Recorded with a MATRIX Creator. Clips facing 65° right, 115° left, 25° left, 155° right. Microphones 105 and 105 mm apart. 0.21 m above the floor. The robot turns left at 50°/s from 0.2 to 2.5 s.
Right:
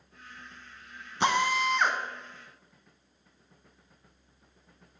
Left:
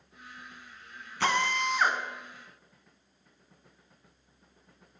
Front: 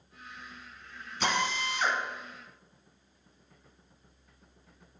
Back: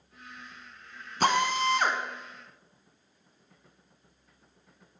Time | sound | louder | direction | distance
1.2 | a drill | right 2 dB, back 6 dB | 130° right | 0.9 m